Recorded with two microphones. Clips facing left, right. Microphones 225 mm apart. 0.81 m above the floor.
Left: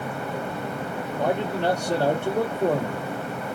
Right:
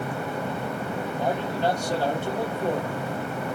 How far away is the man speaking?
About 1.6 m.